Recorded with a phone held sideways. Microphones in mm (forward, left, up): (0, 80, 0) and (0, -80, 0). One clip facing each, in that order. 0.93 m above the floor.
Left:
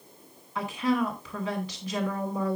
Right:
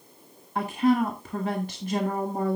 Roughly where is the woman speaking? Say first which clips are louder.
Right 4 dB; right.